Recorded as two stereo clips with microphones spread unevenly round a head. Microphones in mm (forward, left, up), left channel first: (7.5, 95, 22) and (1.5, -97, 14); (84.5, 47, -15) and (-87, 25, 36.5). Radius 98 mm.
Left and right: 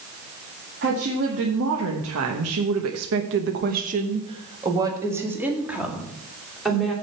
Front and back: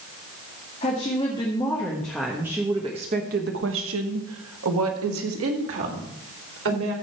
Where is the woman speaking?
55° right, 1.9 m; by 6.9 s 175° left, 3 m.